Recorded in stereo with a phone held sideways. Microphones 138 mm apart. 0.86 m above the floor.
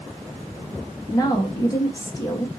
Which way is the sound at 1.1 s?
25° left (ahead or behind).